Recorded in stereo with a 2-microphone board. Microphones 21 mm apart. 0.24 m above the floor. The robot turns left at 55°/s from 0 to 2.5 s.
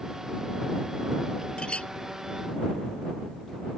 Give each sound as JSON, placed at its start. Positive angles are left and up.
{"t": 1.6, "sound": "a clink", "side_deg": 60}